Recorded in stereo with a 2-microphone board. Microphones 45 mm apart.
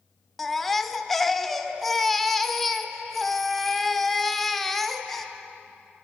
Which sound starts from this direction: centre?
A baby crying, at 0.4 s.